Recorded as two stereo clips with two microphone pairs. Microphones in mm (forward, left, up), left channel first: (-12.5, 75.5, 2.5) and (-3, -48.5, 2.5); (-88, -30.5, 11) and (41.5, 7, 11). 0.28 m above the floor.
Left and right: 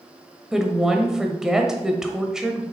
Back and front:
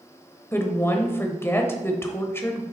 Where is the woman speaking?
160° right, 0.9 m.